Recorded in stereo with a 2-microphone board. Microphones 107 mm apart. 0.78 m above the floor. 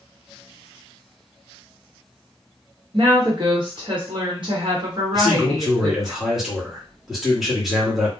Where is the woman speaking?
45° right (ahead or behind), 1.1 m.